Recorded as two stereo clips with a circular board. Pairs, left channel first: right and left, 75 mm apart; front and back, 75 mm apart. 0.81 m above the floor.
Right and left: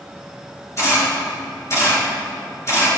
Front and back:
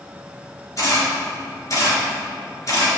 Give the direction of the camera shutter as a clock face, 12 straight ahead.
1 o'clock.